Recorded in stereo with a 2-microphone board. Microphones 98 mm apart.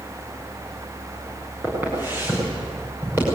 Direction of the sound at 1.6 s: 20° right (ahead or behind).